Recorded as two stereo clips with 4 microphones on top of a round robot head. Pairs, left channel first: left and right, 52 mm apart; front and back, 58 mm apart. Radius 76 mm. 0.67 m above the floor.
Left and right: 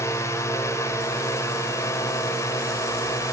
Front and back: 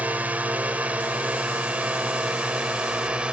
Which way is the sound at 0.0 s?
120° left.